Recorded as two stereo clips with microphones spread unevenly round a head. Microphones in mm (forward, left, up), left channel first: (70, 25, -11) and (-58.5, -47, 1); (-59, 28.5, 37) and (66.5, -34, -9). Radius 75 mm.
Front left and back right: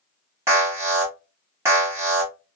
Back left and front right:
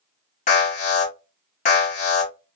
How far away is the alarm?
About 1.3 m.